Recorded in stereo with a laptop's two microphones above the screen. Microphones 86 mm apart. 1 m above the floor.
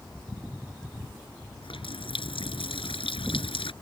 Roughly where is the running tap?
Left.